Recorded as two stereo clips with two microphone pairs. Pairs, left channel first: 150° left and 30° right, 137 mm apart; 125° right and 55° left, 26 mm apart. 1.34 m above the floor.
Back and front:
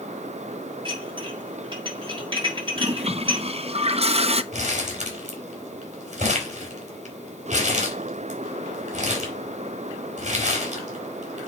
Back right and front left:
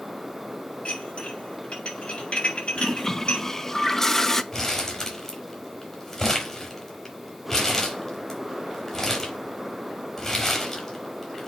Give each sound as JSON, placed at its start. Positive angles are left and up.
{"t": 0.8, "sound": "dishes clattering", "azimuth_deg": -80, "distance_m": 5.5}
{"t": 2.8, "sound": "a toilet flushing", "azimuth_deg": -55, "distance_m": 0.6}
{"t": 4.5, "sound": "crumpling", "azimuth_deg": -55, "distance_m": 4.0}